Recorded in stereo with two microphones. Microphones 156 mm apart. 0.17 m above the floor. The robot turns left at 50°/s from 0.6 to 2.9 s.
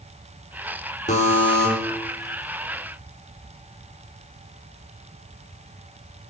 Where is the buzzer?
50° left (ahead or behind), 3.5 m; by 1.7 s 20° left (ahead or behind), 3.5 m.